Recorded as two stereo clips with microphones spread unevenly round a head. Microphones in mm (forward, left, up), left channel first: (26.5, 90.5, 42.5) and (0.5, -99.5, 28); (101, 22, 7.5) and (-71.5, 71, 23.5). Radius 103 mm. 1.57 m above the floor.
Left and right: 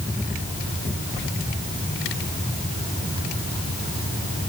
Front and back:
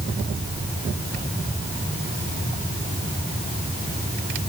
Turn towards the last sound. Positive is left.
No sound to turn to.